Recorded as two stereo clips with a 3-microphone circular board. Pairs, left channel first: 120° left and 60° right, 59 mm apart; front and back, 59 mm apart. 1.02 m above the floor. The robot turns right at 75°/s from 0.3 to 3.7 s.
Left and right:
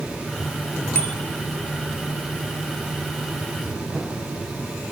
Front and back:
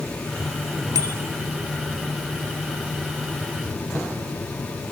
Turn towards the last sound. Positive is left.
turn(degrees=25)